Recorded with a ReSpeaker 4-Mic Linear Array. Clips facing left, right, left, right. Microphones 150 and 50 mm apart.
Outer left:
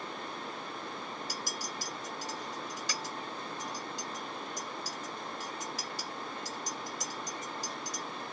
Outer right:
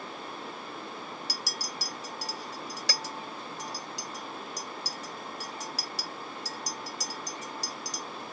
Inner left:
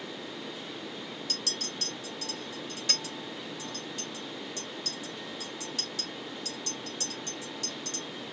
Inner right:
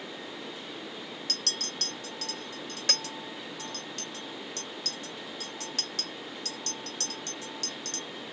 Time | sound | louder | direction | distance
1.3 | a clink | even, inner right 2 dB | 70° right (ahead or behind) | 1.0 m